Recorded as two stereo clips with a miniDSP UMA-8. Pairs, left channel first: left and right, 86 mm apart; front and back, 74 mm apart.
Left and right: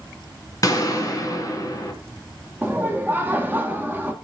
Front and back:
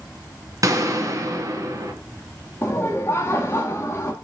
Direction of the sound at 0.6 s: 140° left.